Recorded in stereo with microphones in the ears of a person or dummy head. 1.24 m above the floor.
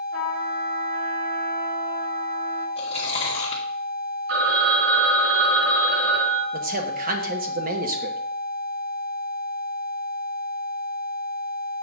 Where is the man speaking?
45° right (ahead or behind), 1.2 m.